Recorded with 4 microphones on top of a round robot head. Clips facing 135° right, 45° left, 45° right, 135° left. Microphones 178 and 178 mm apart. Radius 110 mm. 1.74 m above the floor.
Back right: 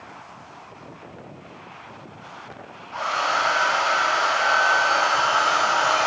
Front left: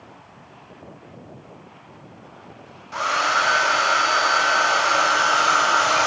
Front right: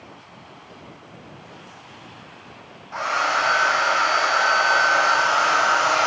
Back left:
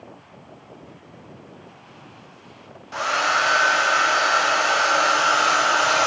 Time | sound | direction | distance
2.9 | a hair dryer | 85° left | 0.8 m